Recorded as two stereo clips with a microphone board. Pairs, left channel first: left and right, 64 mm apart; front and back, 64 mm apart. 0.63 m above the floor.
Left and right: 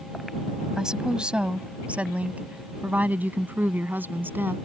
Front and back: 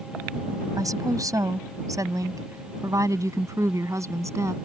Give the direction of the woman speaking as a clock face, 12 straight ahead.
6 o'clock.